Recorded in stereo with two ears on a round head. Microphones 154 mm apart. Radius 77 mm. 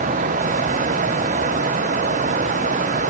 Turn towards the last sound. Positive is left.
No sound to turn to.